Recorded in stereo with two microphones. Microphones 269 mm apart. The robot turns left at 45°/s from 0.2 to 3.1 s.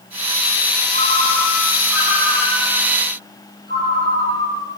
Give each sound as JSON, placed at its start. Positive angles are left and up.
{"t": 0.9, "sound": "a ringtone", "azimuth_deg": -45, "distance_m": 6.0}